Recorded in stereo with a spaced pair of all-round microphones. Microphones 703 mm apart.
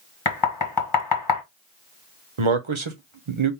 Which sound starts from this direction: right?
A man speaking, at 2.4 s.